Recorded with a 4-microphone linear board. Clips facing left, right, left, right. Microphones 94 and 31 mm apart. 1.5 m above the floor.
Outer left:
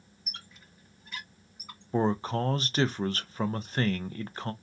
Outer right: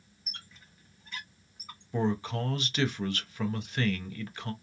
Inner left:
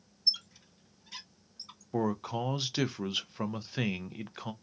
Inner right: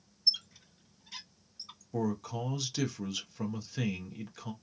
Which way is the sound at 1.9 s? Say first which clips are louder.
Outer left 3 dB, inner left 2 dB; 35° left (ahead or behind).